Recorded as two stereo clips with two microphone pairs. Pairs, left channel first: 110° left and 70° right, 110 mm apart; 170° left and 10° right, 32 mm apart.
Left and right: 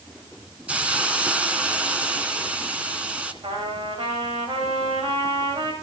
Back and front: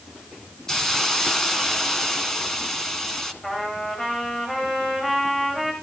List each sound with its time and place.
0.7 s a hiss: 135° right, 1.8 m
3.4 s a trumpet: 115° right, 9 m